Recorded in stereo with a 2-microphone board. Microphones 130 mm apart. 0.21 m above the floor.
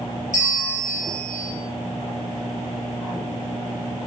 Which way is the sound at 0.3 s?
70° left (ahead or behind).